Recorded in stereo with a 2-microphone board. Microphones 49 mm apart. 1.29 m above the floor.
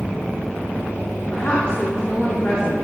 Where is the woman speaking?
30° left (ahead or behind), 2 m.